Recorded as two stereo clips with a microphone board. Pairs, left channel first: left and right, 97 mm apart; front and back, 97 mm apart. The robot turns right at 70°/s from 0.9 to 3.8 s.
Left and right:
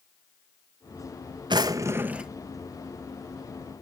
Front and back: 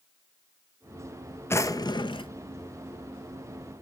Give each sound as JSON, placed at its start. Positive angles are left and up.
{"t": 1.5, "sound": "a drawer", "azimuth_deg": -60, "distance_m": 0.7}